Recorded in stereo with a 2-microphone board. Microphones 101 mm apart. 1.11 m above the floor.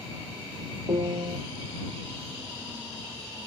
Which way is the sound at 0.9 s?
70° right (ahead or behind).